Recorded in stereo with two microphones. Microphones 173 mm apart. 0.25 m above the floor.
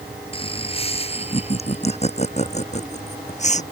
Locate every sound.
0.3 s laughter: 35° left (ahead or behind); by 3.6 s 45° left (ahead or behind)